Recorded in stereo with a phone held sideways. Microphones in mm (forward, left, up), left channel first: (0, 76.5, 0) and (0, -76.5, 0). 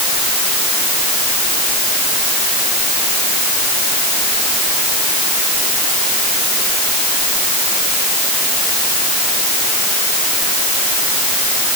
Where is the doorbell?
No doorbell in this recording.